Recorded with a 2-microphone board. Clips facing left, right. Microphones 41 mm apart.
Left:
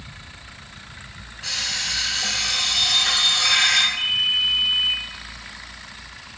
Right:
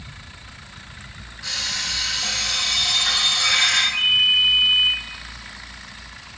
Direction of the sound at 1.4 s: 35° left (ahead or behind).